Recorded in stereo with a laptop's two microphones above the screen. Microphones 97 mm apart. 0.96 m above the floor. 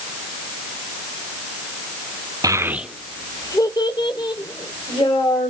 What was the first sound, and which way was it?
A child speaking, 40° right (ahead or behind).